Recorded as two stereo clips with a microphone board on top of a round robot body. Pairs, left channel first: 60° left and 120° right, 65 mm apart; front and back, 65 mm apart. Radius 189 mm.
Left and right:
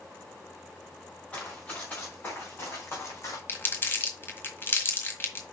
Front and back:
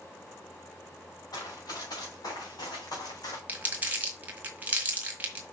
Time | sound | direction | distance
1.3 | running footsteps | 10° right | 5 m
3.5 | crumpling | 115° left | 1.6 m